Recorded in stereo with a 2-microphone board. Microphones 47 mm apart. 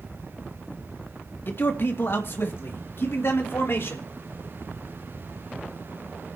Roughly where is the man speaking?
Left.